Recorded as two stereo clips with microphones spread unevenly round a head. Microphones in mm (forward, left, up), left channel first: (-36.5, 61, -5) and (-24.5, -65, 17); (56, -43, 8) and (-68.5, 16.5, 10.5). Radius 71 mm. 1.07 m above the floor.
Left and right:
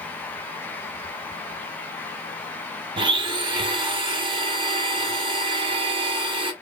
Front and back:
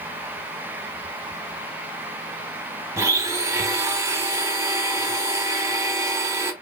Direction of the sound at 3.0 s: 135° right.